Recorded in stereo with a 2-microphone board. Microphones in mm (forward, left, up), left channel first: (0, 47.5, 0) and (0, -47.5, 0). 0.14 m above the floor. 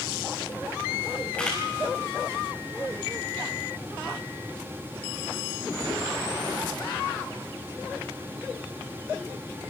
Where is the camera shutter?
15° left (ahead or behind), 6.5 m.